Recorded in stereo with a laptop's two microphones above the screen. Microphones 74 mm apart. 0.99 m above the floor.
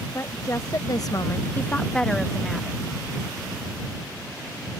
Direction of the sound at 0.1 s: 40° left (ahead or behind).